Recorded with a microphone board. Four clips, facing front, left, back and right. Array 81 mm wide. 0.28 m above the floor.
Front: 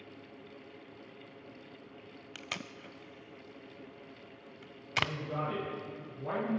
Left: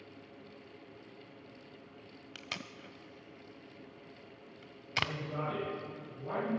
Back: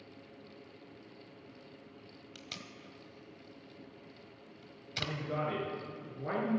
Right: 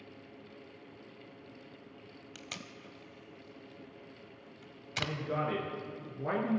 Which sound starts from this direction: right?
A man speaking, at 5.0 s.